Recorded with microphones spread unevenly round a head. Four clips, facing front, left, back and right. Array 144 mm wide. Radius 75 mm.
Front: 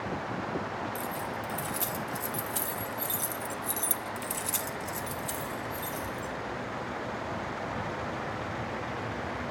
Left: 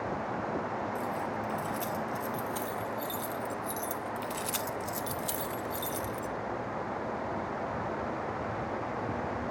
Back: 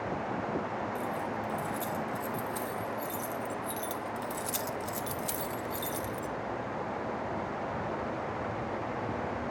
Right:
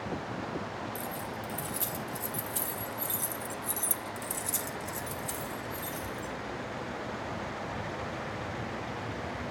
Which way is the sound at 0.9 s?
10° left.